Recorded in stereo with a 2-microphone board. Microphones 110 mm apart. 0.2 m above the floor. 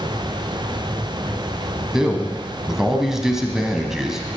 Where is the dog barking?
I don't hear a dog barking.